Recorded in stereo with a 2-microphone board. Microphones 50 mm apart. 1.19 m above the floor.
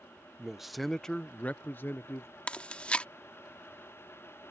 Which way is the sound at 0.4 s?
10° right (ahead or behind).